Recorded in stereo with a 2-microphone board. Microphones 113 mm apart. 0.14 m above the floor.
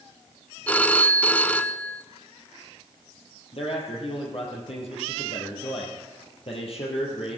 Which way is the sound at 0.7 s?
15° left (ahead or behind).